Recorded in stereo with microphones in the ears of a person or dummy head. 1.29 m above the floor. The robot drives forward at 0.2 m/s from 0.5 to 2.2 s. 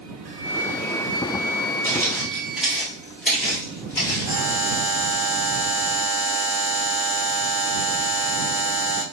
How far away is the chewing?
I don't hear chewing.